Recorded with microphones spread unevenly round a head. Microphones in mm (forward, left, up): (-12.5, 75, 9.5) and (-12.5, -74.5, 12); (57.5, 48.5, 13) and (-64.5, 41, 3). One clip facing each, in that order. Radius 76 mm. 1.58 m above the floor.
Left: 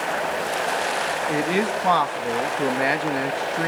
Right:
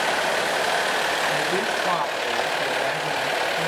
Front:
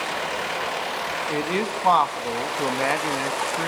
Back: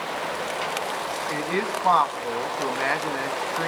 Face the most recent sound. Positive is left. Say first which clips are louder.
# left 2 dB, front 2 dB
turn(degrees=75)